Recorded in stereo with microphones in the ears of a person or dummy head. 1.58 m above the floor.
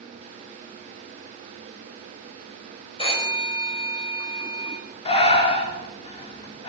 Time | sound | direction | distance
3.0 | a phone ringing | 30° left (ahead or behind) | 5 m
5.0 | breathing | 35° left (ahead or behind) | 2.5 m